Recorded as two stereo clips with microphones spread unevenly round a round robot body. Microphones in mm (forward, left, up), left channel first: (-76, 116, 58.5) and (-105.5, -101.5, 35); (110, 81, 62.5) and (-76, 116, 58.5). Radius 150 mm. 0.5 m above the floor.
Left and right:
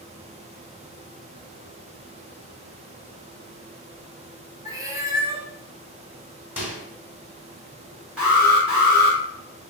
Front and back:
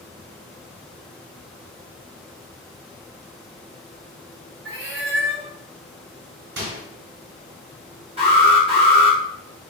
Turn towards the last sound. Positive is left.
turn(degrees=-170)